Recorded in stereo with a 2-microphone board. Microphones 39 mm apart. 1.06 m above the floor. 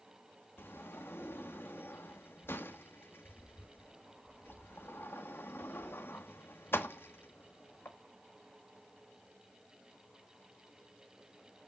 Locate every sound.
0.6 s a sliding door: 70° left (ahead or behind), 1.4 m